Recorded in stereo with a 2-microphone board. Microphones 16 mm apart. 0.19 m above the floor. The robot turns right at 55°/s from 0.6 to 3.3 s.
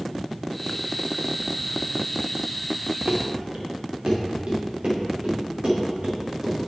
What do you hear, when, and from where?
3.1 s running footsteps: 70° right (ahead or behind), 1.1 m; by 6.6 s 60° right (ahead or behind), 3.5 m